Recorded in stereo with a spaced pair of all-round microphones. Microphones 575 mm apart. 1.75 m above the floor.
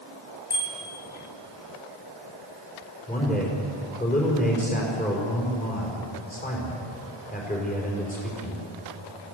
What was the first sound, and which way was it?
A bicycle bell, 40° left (ahead or behind).